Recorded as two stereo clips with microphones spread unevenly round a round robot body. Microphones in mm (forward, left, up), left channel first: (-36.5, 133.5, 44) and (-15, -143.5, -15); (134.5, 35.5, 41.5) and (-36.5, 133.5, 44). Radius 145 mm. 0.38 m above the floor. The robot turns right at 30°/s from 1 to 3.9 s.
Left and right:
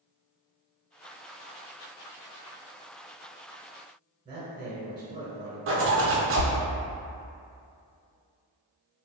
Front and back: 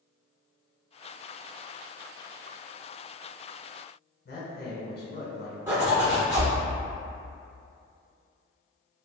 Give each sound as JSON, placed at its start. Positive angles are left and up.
{"t": 4.2, "sound": "a man speaking", "azimuth_deg": -30, "distance_m": 1.2}
{"t": 5.7, "sound": "a zipper", "azimuth_deg": -130, "distance_m": 0.6}